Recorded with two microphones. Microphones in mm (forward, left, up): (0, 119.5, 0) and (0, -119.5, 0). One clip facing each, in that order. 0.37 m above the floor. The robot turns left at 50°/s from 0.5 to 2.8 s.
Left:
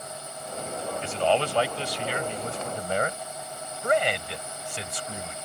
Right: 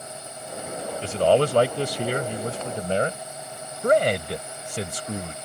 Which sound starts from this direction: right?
A man speaking, at 3.8 s.